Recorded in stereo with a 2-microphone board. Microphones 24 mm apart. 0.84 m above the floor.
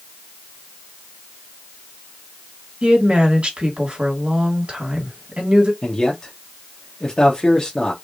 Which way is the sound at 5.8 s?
30° left (ahead or behind).